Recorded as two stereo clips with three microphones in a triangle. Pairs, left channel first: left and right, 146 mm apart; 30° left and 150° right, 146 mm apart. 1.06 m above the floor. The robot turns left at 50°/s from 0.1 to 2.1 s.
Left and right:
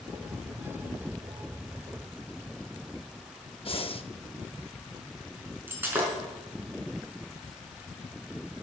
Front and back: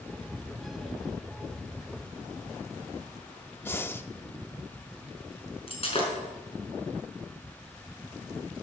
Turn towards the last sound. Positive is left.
turn(degrees=-15)